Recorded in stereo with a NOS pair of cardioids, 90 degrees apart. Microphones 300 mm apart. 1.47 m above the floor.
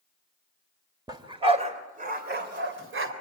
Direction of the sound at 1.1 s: 15° right.